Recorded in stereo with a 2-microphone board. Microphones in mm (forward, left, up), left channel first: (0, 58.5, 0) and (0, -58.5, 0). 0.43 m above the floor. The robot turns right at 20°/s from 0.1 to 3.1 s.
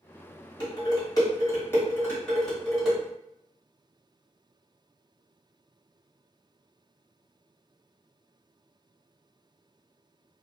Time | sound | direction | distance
0.6 | dishes clattering | 40° left (ahead or behind) | 1.4 m